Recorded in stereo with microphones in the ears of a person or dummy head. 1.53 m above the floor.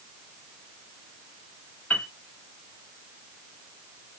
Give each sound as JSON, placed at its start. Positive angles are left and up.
{"t": 1.9, "sound": "a piano", "side_deg": 10, "distance_m": 0.8}